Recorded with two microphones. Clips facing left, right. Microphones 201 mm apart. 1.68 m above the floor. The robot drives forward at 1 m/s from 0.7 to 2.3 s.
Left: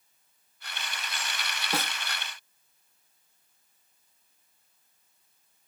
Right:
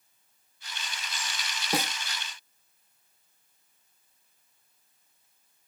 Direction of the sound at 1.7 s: 15° right (ahead or behind).